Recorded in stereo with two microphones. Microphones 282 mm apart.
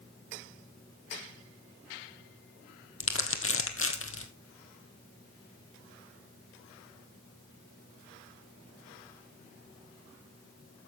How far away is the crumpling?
About 1.4 m.